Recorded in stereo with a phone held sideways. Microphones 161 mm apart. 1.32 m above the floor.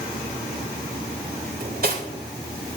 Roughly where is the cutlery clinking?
Right.